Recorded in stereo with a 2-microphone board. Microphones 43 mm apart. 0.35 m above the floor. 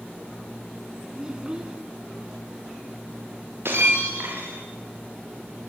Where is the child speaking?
15° right (ahead or behind), 3 m.